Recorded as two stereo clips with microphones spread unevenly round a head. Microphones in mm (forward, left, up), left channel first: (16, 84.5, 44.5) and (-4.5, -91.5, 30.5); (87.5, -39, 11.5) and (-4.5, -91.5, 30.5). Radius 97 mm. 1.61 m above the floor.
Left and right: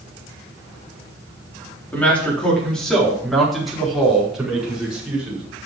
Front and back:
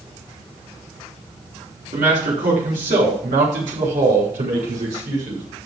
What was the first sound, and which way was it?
A man speaking, 165° left.